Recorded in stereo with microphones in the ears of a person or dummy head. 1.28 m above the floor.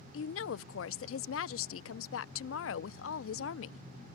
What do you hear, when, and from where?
0.1 s a woman speaking: 65° left (ahead or behind)